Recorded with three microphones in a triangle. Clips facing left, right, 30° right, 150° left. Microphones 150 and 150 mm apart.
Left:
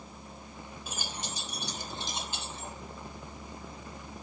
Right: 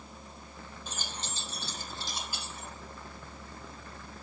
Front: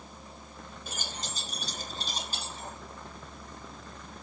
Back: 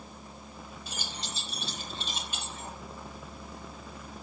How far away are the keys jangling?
About 3.5 m.